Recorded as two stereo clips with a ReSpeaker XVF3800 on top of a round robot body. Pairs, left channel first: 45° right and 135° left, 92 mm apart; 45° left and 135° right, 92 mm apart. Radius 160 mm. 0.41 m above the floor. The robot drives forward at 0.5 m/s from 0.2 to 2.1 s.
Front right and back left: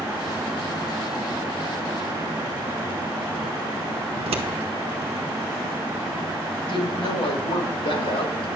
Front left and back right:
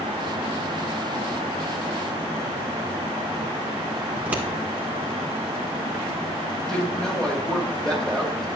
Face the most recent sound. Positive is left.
turn(degrees=-40)